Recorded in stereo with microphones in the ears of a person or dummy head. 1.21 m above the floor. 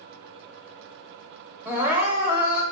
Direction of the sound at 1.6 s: 10° right (ahead or behind).